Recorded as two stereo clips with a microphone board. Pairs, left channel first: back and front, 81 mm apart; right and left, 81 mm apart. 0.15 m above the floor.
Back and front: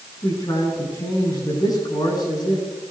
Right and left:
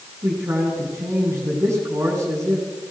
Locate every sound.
0.2 s a man speaking: 145° left, 9 m